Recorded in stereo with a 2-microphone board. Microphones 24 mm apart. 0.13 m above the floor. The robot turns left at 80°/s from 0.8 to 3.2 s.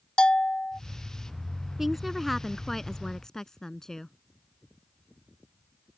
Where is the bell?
40° left (ahead or behind).